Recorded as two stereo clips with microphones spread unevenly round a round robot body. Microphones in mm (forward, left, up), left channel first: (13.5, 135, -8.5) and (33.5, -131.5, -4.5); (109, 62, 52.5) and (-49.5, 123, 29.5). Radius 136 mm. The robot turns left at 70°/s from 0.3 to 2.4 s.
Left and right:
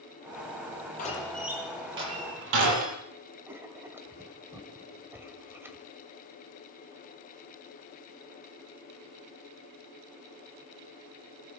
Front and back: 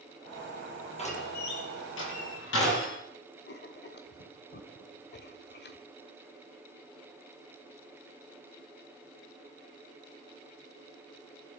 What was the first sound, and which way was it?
A door slam, 35° left.